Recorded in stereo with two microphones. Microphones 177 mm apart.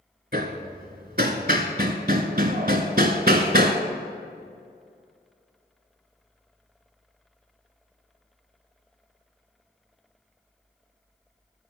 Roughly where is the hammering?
Right.